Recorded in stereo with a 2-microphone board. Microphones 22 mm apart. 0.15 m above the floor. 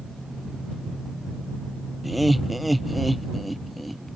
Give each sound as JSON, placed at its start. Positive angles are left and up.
{"t": 2.0, "sound": "laughter", "side_deg": 0}